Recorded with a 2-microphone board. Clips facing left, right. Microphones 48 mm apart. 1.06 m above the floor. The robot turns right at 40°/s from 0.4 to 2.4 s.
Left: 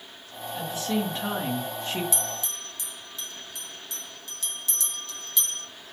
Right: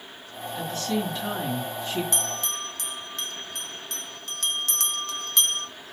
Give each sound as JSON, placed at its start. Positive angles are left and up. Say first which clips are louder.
{"t": 0.5, "sound": "a woman speaking", "louder": "even", "azimuth_deg": 5, "distance_m": 1.6}
{"t": 2.1, "sound": "a bell", "louder": "right 3 dB", "side_deg": -55, "distance_m": 0.6}